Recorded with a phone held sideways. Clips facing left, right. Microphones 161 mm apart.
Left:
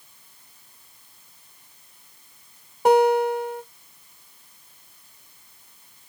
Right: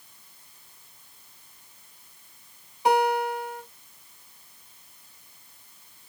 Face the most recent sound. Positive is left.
turn(degrees=50)  # may be behind; listen again after turning